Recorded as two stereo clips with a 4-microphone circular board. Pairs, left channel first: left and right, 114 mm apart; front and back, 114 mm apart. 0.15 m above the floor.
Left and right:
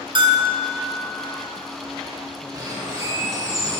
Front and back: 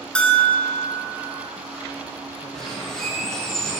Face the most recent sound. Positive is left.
turn(degrees=-80)